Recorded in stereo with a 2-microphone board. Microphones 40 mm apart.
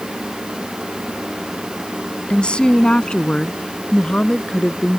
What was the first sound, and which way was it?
A woman speaking, 25° left (ahead or behind).